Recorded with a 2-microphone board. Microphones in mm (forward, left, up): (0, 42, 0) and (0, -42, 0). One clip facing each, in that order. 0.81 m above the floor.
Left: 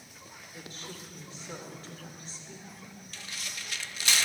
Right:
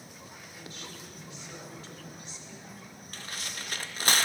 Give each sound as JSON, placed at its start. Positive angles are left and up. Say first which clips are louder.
{"t": 0.5, "sound": "a woman speaking", "louder": "left 2 dB", "side_deg": 40, "distance_m": 2.5}
{"t": 3.1, "sound": "tearing paper", "louder": "right 3 dB", "side_deg": -45, "distance_m": 0.6}